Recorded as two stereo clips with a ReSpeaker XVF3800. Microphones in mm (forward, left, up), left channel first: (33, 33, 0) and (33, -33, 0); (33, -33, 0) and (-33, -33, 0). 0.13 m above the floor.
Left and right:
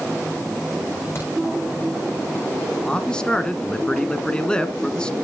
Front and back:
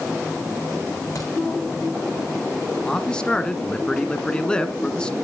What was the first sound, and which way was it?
A crack, 35° left.